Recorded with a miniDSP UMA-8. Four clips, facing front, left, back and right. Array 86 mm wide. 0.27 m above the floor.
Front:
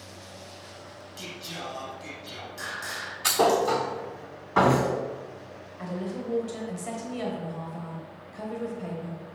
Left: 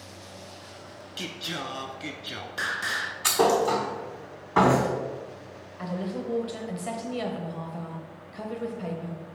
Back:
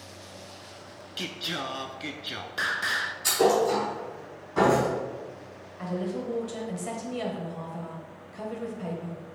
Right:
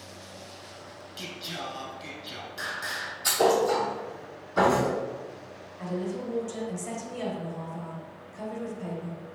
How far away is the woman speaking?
About 1.0 m.